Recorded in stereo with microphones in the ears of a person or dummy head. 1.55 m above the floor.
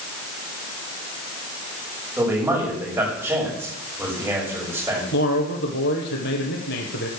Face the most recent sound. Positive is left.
turn(degrees=60)  # may be behind; listen again after turning